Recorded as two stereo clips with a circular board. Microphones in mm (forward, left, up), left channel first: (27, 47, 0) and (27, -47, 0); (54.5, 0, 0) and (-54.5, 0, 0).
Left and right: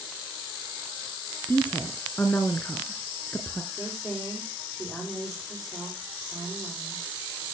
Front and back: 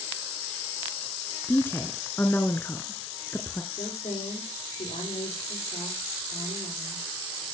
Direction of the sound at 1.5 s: 50° left.